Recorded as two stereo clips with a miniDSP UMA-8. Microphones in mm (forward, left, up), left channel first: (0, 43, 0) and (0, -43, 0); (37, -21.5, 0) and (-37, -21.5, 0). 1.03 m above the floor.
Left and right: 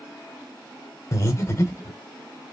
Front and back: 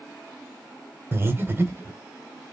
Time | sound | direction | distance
1.1 | breathing | 130° left | 0.9 m